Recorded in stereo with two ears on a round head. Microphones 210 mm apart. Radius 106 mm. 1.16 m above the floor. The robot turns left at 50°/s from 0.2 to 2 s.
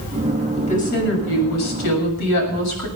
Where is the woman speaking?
155° left, 7 m; by 2.9 s 80° left, 7 m.